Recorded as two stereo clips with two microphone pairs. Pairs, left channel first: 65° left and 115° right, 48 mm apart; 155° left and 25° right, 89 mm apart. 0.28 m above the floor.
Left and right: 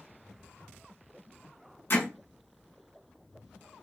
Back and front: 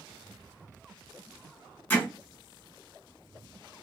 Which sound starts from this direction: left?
Hammering, at 1.9 s.